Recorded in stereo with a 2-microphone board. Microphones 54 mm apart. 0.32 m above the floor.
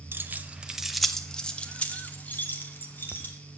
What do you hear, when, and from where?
0.1 s keys jangling: 40° right (ahead or behind), 0.8 m; by 3.3 s 40° left (ahead or behind), 2 m